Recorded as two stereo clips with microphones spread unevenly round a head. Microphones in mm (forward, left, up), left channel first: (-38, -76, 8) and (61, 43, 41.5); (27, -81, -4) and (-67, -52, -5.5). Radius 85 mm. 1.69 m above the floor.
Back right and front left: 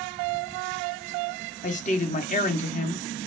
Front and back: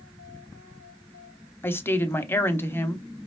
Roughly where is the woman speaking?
Right.